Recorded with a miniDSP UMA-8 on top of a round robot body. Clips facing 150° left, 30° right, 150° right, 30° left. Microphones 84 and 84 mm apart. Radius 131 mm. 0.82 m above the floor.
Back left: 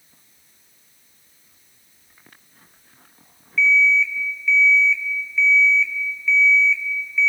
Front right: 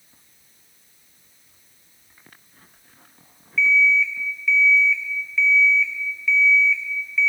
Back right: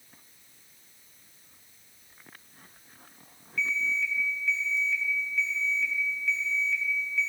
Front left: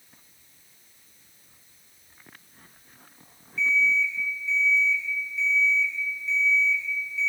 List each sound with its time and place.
3.6 s an alarm clock: 120° right, 1.0 m